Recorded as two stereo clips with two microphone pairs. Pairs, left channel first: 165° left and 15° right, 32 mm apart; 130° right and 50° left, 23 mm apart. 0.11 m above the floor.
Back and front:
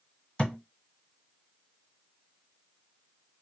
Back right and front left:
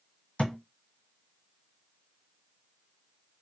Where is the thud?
145° right, 1.1 m.